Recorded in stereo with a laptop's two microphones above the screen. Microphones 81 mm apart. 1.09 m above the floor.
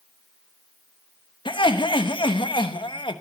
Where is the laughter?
80° left, 1.1 m.